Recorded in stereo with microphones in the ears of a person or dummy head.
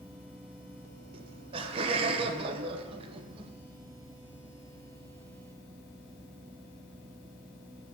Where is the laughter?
35° right (ahead or behind), 1.1 m.